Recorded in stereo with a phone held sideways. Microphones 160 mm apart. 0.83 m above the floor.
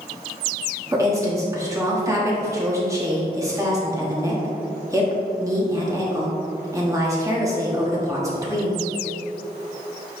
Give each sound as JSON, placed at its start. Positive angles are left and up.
{"t": 0.9, "sound": "a woman speaking", "side_deg": -20, "distance_m": 1.4}